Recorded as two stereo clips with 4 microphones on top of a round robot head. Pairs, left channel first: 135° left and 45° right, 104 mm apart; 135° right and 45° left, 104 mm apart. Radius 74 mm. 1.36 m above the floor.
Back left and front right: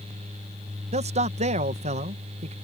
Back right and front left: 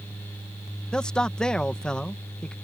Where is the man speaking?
50° right.